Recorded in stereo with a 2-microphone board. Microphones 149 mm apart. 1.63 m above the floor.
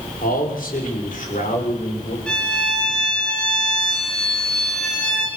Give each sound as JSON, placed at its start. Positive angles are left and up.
{"t": 0.2, "sound": "a man speaking", "side_deg": 70, "distance_m": 6.0}
{"t": 2.3, "sound": "a violin", "side_deg": 5, "distance_m": 5.5}